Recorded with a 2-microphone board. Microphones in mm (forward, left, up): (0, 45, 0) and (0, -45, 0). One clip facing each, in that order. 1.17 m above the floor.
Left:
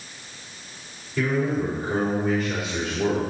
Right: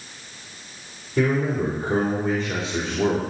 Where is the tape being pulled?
I don't hear tape being pulled.